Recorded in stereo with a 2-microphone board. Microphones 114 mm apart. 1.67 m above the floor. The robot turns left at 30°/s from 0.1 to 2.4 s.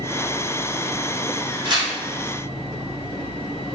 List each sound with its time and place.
1.6 s tearing paper: 40° right (ahead or behind), 1.3 m; by 1.9 s 35° right (ahead or behind), 1.3 m